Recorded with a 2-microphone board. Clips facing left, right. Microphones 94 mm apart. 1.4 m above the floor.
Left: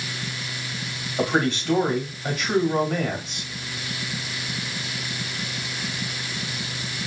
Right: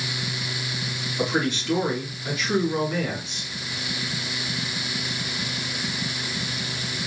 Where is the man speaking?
55° left (ahead or behind), 2.5 m.